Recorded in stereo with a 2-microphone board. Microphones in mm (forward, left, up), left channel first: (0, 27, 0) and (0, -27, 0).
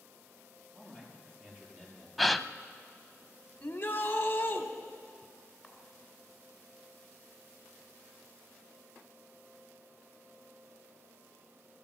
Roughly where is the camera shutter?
Centre.